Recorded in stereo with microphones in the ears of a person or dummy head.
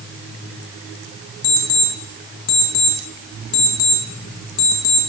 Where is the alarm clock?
45° left (ahead or behind), 1.2 m.